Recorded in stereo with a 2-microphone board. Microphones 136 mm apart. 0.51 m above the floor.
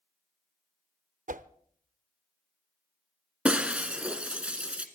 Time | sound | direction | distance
1.3 | a whoosh | 75° right (ahead or behind) | 0.5 m
3.5 | breaking glass | 10° right (ahead or behind) | 1.3 m